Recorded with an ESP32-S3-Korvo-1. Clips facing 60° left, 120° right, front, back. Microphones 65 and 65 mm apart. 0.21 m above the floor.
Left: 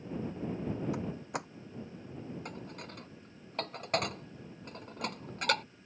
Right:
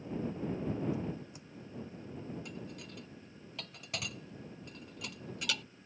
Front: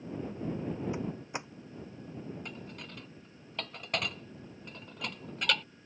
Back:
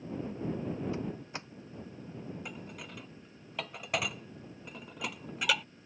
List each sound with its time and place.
0.9 s a door slam: 70° left
2.5 s dishes clattering: 100° left